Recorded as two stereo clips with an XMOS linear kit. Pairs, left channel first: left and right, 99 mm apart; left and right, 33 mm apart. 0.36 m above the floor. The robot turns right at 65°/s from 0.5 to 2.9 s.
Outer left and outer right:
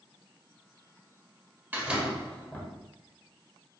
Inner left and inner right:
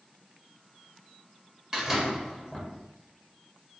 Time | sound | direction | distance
1.7 | a door slam | 30° right | 1.1 m